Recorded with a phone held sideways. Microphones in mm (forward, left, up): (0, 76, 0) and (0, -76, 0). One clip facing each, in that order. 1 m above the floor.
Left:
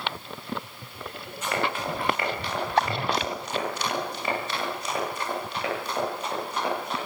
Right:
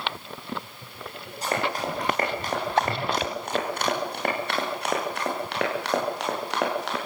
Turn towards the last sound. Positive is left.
turn(degrees=-85)